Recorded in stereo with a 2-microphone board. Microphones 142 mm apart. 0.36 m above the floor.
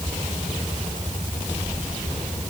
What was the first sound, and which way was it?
Only background noise.